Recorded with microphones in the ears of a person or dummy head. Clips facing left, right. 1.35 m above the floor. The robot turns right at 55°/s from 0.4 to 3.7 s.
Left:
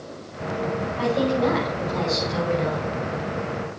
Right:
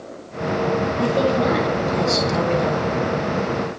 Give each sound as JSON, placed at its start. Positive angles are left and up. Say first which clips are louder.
{"t": 1.0, "sound": "a woman speaking", "louder": "right 1 dB", "azimuth_deg": -160, "distance_m": 6.5}